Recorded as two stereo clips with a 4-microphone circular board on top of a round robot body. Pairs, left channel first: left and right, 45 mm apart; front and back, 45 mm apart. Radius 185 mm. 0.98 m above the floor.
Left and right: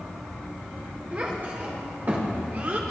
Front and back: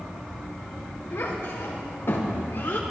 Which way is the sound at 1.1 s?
35° right.